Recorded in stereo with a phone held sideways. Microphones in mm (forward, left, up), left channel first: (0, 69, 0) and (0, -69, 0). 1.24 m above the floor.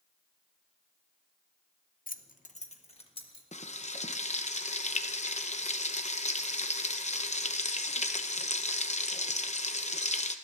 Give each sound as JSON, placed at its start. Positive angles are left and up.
{"t": 2.1, "sound": "keys jangling", "side_deg": 85, "distance_m": 0.7}
{"t": 3.5, "sound": "frying", "side_deg": 55, "distance_m": 0.7}